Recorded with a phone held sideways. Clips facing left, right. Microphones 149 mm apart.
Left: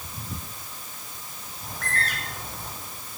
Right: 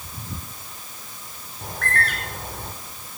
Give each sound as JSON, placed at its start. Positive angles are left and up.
{"t": 1.6, "sound": "a bird", "side_deg": -60, "distance_m": 6.0}